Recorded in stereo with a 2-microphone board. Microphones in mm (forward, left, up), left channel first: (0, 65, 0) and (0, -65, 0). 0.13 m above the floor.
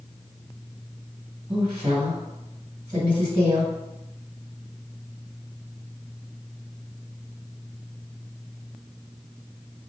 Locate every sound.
1.5 s a woman speaking: 30° right (ahead or behind), 1.6 m